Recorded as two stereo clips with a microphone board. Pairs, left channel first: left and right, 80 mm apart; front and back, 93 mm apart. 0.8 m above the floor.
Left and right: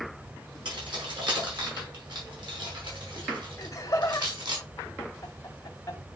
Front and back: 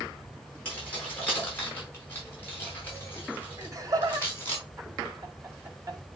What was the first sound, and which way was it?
Keys jangling, 75° right.